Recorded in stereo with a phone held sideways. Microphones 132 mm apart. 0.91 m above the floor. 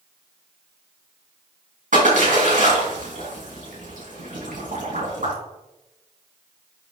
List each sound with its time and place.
1.9 s a splash: 85° right, 5 m